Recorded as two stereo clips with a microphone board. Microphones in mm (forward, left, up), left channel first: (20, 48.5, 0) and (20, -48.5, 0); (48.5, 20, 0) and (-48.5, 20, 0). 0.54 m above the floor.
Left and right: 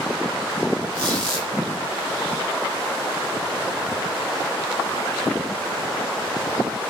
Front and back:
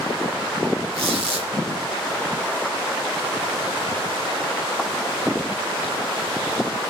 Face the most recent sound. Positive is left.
turn(degrees=170)